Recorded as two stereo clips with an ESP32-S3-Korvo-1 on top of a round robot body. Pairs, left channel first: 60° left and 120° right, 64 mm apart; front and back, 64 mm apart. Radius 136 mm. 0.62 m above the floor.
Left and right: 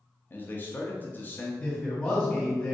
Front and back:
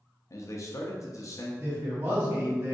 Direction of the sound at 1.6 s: 125° left.